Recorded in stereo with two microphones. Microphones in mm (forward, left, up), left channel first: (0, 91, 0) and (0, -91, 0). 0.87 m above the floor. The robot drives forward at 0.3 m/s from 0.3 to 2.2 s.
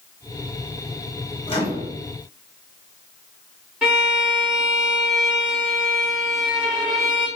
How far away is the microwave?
About 1.2 m.